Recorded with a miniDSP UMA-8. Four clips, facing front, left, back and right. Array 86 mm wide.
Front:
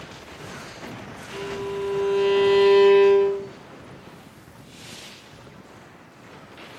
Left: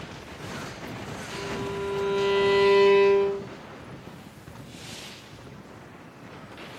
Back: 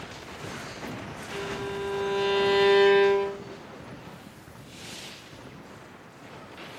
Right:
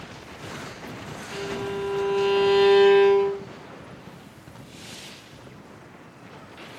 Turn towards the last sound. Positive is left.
turn(degrees=-110)